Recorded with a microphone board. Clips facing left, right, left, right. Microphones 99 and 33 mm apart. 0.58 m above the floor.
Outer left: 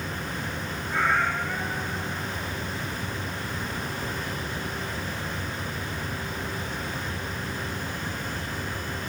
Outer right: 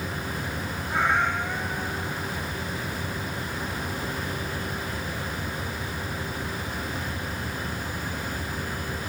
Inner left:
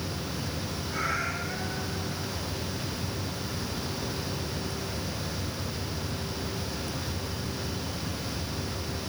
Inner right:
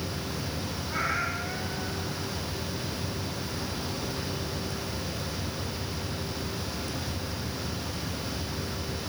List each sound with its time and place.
0.9 s a cat meowing: 20° right (ahead or behind), 9.5 m